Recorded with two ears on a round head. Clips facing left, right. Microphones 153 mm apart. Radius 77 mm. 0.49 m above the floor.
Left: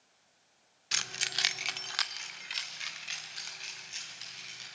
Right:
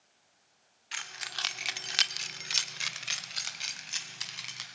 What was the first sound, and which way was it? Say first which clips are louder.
Keys jangling: left 2 dB; 50° left (ahead or behind).